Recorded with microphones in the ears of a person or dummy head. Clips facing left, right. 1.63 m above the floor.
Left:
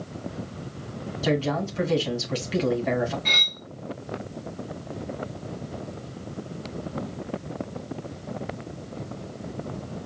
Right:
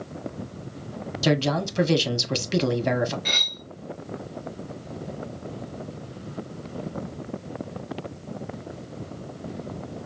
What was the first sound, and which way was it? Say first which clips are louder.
A man speaking: right 2 dB; 55° right (ahead or behind).